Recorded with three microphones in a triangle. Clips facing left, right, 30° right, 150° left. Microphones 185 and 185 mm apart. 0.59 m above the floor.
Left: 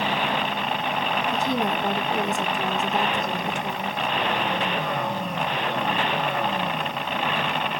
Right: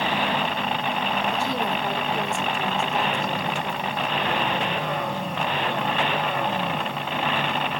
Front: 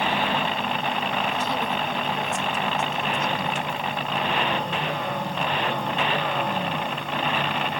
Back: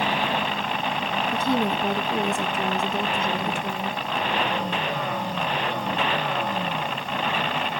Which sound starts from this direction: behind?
A woman speaking, at 1.3 s.